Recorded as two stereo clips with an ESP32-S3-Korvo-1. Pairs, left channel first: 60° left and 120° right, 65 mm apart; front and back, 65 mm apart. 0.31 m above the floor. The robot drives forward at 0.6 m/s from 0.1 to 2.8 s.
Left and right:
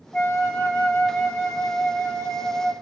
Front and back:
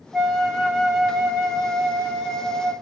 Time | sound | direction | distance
0.1 | a flute | 80° left | 2 m